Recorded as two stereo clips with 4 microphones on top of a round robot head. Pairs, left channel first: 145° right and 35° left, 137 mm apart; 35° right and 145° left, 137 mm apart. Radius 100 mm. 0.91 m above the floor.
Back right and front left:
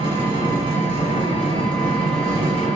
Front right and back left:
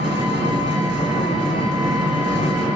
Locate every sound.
0.0 s an engine running: 85° left, 1.4 m